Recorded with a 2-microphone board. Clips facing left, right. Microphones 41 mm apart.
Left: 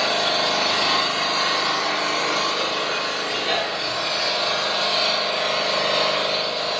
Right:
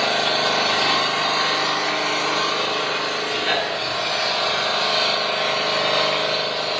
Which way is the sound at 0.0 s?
45° right (ahead or behind).